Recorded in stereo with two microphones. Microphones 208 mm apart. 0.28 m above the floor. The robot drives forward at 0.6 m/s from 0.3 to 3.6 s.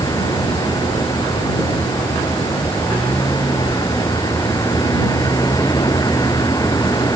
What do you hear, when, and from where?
0.0 s a vehicle: 20° left (ahead or behind)